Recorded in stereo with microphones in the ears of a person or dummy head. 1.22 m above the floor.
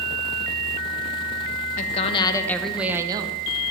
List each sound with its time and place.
1.8 s a woman speaking: 40° left (ahead or behind), 1.0 m; by 3.4 s 30° right (ahead or behind), 0.9 m